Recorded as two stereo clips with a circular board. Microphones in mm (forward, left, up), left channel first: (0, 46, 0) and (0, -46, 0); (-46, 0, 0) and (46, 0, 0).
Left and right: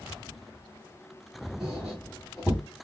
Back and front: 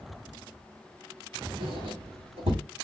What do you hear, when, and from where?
1.6 s a squeak: straight ahead, 5.5 m